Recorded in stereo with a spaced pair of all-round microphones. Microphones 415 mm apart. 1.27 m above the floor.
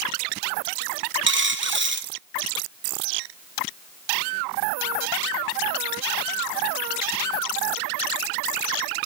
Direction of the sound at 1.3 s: 30° right (ahead or behind).